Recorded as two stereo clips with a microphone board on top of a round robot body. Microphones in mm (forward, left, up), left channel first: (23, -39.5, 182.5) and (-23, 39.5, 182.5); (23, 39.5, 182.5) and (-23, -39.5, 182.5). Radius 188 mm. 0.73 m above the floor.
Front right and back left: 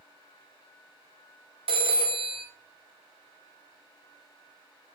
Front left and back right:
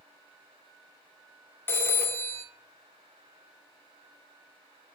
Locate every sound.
1.7 s a phone ringing: 125° left, 0.6 m